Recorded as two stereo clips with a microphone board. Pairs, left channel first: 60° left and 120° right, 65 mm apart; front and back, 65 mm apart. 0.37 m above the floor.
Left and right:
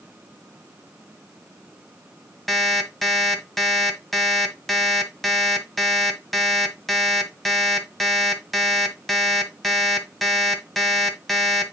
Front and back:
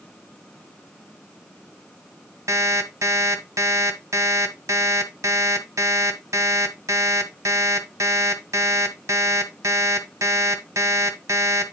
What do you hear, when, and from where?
2.5 s an alarm clock: 150° left, 1.2 m